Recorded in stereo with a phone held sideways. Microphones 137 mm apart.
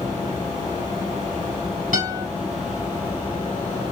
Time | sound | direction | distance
1.9 | a guitar | 85° right | 6 m